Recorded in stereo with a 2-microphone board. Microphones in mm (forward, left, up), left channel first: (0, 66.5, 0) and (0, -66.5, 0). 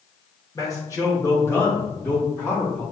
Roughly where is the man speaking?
Left.